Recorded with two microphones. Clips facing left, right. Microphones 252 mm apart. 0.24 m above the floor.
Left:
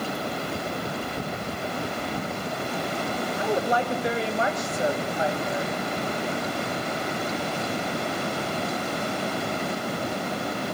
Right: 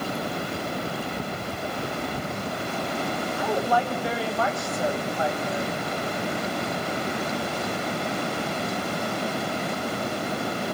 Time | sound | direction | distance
3.4 | a woman speaking | 20° left (ahead or behind) | 0.9 m